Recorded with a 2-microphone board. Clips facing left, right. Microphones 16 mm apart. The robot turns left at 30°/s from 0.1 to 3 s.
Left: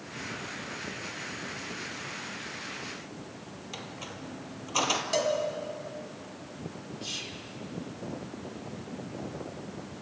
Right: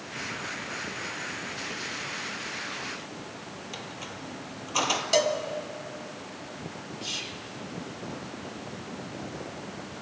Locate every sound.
3.7 s a squeak: centre (ahead or behind), 1.3 m
5.1 s a cowbell: 30° right (ahead or behind), 1.5 m
7.0 s whispering: 15° right (ahead or behind), 1.8 m